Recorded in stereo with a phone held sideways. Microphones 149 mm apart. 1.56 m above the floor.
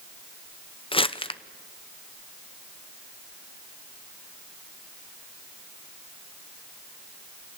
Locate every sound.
0.9 s crumpling: 35° left (ahead or behind), 0.7 m